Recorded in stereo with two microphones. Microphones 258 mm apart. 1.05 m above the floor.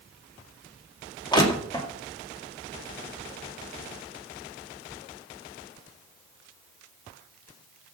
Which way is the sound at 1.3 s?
15° left (ahead or behind).